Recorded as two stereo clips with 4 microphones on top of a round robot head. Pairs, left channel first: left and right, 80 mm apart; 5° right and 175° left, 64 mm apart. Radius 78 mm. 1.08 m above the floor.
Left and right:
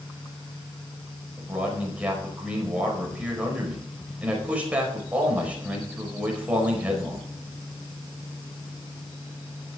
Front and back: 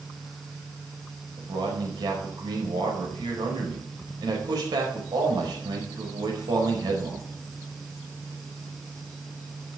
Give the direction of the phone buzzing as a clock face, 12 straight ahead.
No phone buzzing in this recording.